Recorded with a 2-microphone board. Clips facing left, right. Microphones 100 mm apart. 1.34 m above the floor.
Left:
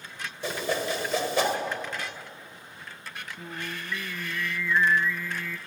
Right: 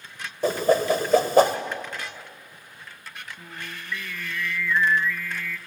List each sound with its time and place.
0.4 s a whoosh: 50° right (ahead or behind), 1.7 m
3.4 s singing: 20° left (ahead or behind), 0.6 m